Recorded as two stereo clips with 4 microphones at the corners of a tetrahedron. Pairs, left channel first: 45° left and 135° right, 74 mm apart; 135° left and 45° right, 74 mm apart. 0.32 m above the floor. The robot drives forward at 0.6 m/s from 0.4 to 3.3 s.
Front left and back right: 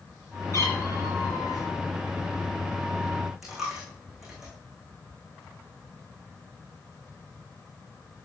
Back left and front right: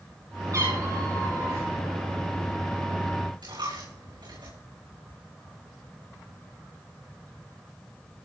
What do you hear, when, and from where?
0.5 s a cat meowing: 5° right, 5 m
3.4 s a dropped coin: 50° right, 7.5 m